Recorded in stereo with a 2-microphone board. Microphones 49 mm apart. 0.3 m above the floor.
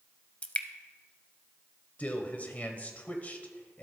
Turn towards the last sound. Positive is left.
turn(degrees=30)  # may be behind; listen again after turning